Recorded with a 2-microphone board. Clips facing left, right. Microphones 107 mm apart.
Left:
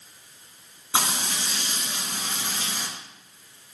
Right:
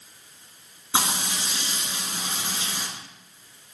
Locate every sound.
0.9 s frying: 15° right (ahead or behind), 1.8 m